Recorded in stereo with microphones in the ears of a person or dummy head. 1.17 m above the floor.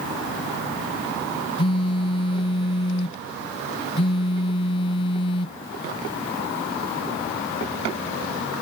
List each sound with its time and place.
1.6 s a phone buzzing: 30° left (ahead or behind)